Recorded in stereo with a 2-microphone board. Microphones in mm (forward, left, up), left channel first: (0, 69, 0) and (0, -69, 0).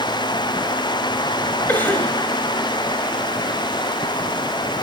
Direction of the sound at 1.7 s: 15° left (ahead or behind).